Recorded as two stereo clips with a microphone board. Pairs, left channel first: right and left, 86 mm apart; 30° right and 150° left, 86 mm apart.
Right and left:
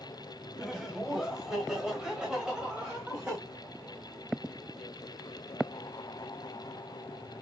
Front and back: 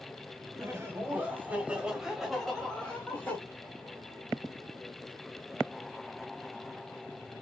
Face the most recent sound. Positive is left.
turn(degrees=20)